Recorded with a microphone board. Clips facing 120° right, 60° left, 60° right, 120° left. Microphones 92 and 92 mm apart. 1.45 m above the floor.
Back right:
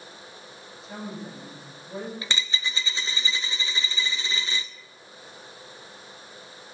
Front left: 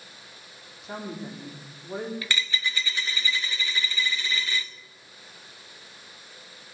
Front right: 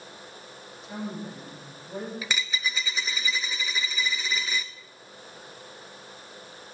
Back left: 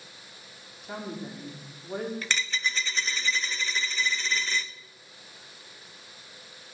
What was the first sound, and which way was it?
A woman speaking, 90° left.